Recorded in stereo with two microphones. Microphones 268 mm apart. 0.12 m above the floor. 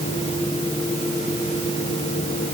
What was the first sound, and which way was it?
Only background noise.